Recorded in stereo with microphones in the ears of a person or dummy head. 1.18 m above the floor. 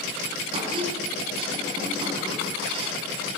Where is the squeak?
35° right (ahead or behind), 4.5 m.